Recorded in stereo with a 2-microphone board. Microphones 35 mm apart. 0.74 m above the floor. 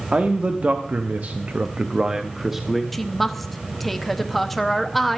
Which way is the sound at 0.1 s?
35° right (ahead or behind).